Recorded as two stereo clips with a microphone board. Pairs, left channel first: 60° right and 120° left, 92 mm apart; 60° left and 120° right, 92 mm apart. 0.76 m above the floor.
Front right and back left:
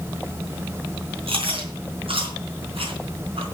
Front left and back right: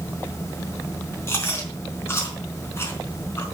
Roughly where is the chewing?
Behind left.